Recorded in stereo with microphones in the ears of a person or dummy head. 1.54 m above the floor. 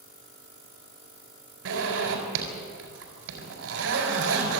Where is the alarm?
I don't hear an alarm.